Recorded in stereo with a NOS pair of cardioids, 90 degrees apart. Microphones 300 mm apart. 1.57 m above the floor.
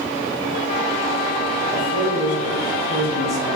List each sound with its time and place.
1.7 s a man speaking: 25° left, 1.4 m; by 3.6 s 45° left, 2 m